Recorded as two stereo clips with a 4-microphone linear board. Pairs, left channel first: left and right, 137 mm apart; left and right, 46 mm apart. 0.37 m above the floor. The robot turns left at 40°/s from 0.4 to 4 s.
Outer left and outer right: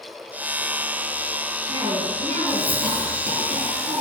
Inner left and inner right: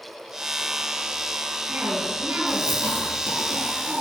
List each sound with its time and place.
1.7 s a cough: 30° right, 7.5 m; by 4.0 s 120° right, 7.5 m